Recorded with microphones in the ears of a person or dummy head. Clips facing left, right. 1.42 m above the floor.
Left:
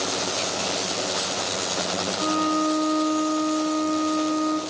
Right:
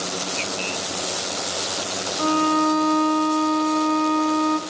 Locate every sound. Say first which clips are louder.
2.2 s a violin: right 4 dB; 50° right (ahead or behind), 1.9 m